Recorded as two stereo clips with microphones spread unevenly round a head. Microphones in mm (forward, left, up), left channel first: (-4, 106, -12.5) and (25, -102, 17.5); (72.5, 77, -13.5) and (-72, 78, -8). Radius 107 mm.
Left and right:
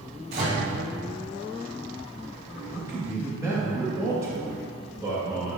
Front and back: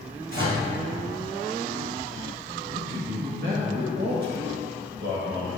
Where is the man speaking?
160° right, 1.9 m.